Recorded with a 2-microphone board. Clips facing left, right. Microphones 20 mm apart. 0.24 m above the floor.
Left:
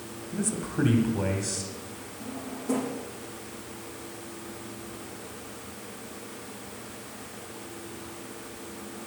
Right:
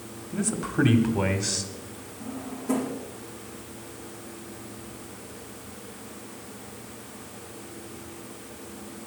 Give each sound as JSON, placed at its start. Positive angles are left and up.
{"t": 0.3, "sound": "a man speaking", "side_deg": -15, "distance_m": 1.4}
{"t": 2.2, "sound": "a drawer", "side_deg": 10, "distance_m": 4.5}